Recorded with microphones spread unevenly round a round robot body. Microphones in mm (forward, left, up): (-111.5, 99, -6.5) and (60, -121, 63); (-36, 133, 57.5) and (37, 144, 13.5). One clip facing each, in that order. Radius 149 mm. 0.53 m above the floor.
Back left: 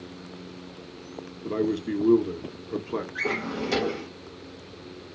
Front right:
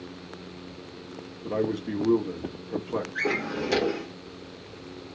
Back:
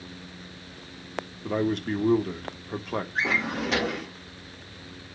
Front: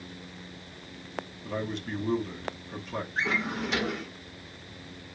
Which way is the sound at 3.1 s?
145° right.